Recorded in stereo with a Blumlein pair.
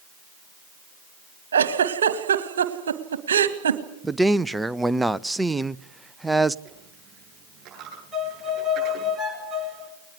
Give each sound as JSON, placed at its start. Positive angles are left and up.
{"t": 1.5, "sound": "a giggle", "azimuth_deg": -65, "distance_m": 1.7}
{"t": 4.0, "sound": "a man speaking", "azimuth_deg": -5, "distance_m": 0.6}
{"t": 6.7, "sound": "a dropped coin", "azimuth_deg": -30, "distance_m": 8.5}
{"t": 8.1, "sound": "a violin", "azimuth_deg": -5, "distance_m": 6.0}